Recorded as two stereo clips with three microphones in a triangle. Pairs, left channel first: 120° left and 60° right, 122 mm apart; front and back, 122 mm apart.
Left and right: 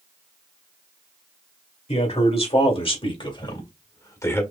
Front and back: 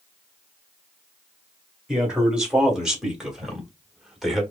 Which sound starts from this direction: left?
A man speaking, at 1.9 s.